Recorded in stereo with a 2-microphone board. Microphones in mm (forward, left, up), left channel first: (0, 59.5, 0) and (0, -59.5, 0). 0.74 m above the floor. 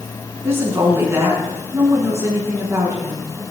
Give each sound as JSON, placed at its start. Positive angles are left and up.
{"t": 0.4, "sound": "a woman speaking", "side_deg": -20, "distance_m": 7.5}